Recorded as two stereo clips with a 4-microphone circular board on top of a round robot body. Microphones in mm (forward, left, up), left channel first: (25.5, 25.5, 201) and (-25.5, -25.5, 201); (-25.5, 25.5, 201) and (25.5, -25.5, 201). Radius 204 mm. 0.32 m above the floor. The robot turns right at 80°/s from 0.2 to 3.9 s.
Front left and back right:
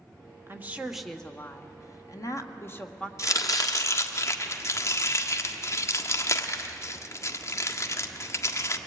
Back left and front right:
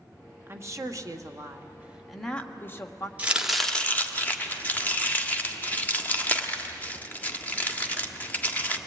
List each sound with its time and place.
0.5 s a woman speaking: 90° right, 1.8 m; by 3.1 s 120° left, 1.8 m
3.2 s chopping: 15° left, 1.6 m; by 8.8 s 75° left, 1.6 m